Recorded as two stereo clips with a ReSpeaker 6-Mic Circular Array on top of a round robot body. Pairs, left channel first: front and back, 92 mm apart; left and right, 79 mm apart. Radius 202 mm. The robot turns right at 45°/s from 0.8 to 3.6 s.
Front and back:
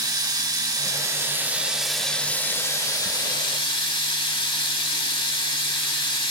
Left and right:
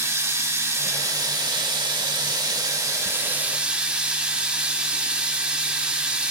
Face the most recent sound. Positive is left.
turn(degrees=-15)